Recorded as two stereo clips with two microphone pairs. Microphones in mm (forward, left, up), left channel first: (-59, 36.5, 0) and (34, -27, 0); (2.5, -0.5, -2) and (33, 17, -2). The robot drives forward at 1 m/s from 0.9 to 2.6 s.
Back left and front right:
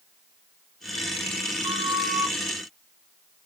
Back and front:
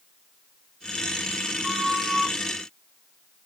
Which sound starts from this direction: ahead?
A flute, at 1.6 s.